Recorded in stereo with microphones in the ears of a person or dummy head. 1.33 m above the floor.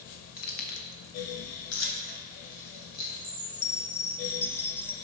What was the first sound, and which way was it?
Keys jangling, 50° left (ahead or behind).